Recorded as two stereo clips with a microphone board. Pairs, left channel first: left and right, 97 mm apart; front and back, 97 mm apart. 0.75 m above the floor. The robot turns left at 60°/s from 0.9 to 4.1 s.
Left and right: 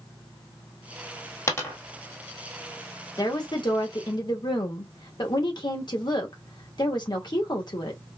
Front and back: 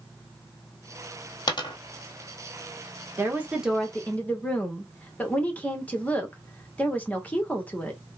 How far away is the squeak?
No squeak in this recording.